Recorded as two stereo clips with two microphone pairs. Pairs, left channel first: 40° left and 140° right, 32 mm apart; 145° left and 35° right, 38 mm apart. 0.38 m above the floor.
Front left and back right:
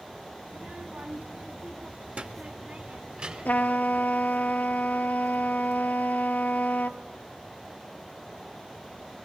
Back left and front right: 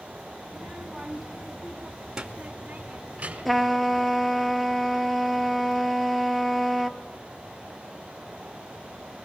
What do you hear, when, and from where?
0.5 s a child speaking: 135° right, 3 m; by 3.7 s 90° right, 3.5 m
3.5 s a trumpet: 60° left, 1.1 m